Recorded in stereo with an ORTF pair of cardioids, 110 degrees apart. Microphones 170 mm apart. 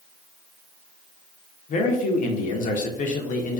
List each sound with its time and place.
1.7 s a man speaking: 50° left, 0.6 m